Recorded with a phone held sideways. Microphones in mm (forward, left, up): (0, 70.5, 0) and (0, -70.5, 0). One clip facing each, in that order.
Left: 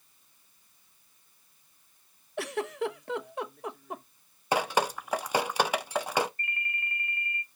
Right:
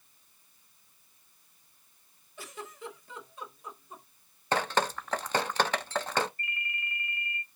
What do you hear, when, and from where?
2.4 s a giggle: 70° left (ahead or behind), 0.6 m
4.5 s dripping: 10° left (ahead or behind), 0.5 m
6.4 s a ringtone: 45° left (ahead or behind), 1.3 m